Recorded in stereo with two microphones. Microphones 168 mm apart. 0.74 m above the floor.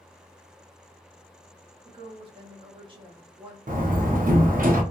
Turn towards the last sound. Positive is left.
turn(degrees=-55)  # may be behind; listen again after turning